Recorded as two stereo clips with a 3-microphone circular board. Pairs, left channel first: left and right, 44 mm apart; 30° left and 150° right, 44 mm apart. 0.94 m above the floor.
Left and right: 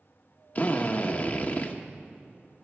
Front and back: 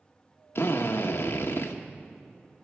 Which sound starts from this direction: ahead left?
A drill, at 0.6 s.